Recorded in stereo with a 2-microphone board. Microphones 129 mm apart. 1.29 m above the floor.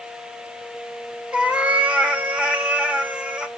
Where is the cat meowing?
10° right (ahead or behind), 1.1 m.